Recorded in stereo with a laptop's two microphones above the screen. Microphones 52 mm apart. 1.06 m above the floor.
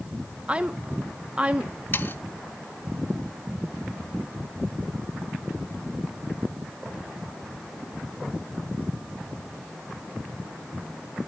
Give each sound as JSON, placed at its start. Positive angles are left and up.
{"t": 0.5, "sound": "a woman speaking", "side_deg": -25, "distance_m": 0.8}
{"t": 1.9, "sound": "sawing", "side_deg": 45, "distance_m": 1.0}